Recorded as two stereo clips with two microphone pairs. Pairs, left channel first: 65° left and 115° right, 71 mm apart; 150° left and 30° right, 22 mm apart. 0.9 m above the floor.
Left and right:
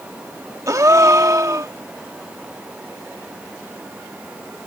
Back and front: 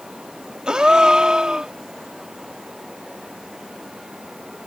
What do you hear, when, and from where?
0.7 s a gasp: 75° right